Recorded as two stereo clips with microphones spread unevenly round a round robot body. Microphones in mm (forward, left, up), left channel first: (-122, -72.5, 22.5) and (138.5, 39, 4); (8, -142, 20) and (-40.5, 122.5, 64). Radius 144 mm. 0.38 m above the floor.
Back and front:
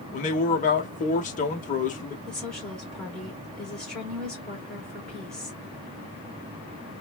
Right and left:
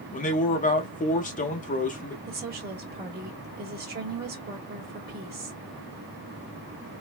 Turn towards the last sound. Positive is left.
turn(degrees=110)